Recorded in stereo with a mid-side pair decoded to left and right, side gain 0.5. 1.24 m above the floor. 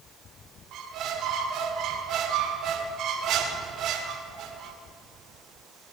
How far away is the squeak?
About 2 m.